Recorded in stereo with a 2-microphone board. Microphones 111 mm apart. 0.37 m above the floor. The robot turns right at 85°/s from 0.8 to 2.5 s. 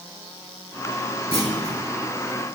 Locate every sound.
1.3 s a clunk: 60° left, 3.5 m; by 1.8 s 100° left, 3.5 m